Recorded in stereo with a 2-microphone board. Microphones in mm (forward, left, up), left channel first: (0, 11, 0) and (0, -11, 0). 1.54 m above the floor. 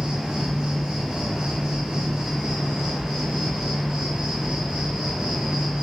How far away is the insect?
About 1.3 m.